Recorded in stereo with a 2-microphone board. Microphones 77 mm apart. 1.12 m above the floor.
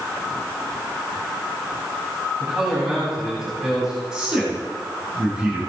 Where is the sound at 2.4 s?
10° right (ahead or behind), 8.5 m; by 4.0 s 5° right (ahead or behind), 9.5 m.